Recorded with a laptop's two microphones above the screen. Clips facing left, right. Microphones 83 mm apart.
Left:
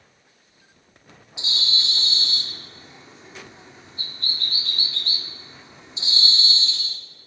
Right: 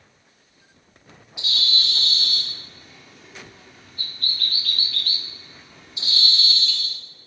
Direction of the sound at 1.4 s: 25° left (ahead or behind).